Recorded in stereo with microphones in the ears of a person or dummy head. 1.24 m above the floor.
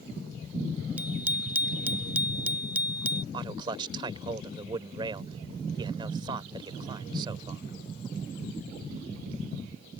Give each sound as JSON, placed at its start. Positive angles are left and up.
{"t": 1.0, "sound": "a bicycle bell", "side_deg": -5}
{"t": 3.3, "sound": "a man speaking", "side_deg": -20}